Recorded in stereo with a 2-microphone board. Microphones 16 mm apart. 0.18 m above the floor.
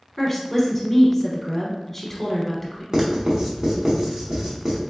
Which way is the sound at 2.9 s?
45° right (ahead or behind).